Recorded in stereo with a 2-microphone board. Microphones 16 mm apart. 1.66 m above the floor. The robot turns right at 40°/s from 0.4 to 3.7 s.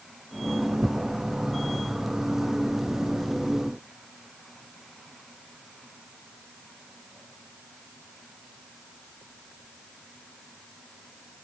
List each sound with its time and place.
0.8 s tearing paper: 50° right (ahead or behind), 0.5 m; by 3.4 s 40° left (ahead or behind), 0.5 m